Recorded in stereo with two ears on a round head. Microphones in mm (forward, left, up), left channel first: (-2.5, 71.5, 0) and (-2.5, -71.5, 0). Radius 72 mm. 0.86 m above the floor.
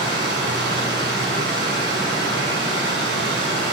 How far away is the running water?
About 6 m.